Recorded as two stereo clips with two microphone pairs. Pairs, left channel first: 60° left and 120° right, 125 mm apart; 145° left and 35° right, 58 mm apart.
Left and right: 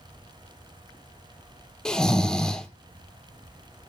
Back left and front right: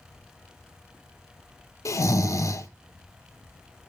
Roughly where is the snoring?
Behind left.